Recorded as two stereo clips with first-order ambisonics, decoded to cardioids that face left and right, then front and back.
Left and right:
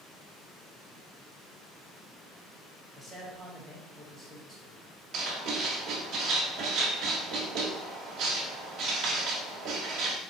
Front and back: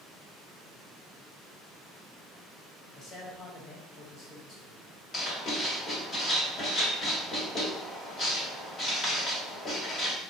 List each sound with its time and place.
2.9 s a man speaking: 5° left, 1.4 m
5.1 s writing: 65° right, 1.3 m